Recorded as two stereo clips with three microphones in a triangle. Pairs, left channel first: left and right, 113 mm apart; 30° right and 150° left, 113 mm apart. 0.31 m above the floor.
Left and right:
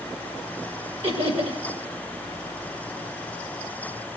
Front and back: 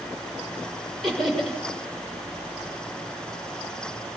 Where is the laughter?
120° right, 6.5 m.